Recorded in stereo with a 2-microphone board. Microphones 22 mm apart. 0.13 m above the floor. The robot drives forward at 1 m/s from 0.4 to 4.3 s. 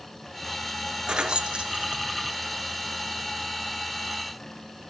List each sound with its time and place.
1.1 s keys jangling: 35° right (ahead or behind), 1.6 m; by 2.4 s 40° right (ahead or behind), 1.4 m